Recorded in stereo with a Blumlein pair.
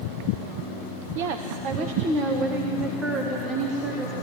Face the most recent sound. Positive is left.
turn(degrees=-10)